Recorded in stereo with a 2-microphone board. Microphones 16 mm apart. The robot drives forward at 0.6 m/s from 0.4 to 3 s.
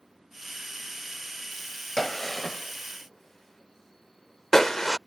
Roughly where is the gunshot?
Centre.